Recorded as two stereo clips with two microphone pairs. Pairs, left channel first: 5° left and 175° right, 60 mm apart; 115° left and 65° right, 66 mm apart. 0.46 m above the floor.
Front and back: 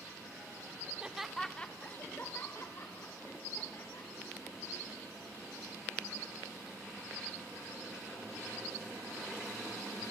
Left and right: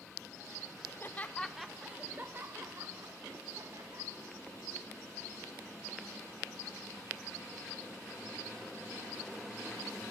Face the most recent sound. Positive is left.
turn(degrees=-35)